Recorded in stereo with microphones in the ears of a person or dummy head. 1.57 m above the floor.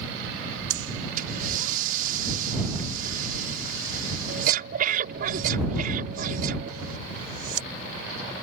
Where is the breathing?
50° right (ahead or behind).